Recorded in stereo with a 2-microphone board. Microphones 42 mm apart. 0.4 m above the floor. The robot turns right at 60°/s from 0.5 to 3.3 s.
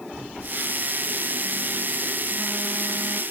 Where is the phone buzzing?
20° right (ahead or behind), 3 m; by 3.2 s 5° left (ahead or behind), 3 m.